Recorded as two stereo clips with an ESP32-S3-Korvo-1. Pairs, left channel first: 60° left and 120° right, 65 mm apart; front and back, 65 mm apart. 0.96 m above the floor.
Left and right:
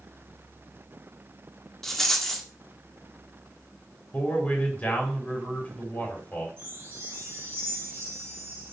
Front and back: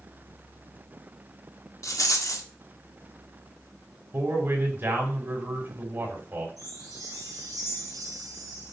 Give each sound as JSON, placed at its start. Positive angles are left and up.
{"t": 1.8, "sound": "a rattle", "azimuth_deg": -25, "distance_m": 1.4}
{"t": 4.1, "sound": "a man speaking", "azimuth_deg": 125, "distance_m": 3.5}
{"t": 6.6, "sound": "a chime", "azimuth_deg": -170, "distance_m": 3.0}